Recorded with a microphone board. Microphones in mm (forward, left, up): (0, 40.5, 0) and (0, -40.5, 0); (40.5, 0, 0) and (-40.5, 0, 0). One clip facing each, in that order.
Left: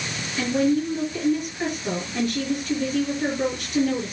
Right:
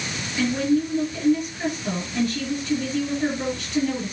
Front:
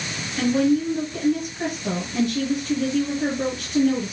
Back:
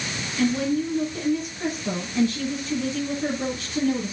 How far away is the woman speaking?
About 5 m.